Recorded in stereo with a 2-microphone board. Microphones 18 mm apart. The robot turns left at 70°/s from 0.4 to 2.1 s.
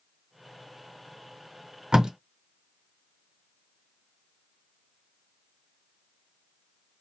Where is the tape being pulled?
50° right (ahead or behind), 0.7 m.